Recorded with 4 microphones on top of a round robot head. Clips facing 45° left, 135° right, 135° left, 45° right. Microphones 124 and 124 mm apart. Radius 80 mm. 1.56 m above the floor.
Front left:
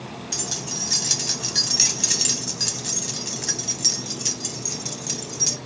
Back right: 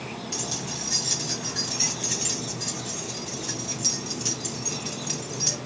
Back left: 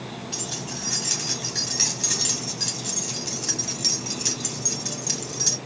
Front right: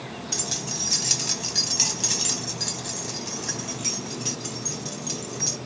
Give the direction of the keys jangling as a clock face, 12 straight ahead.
12 o'clock.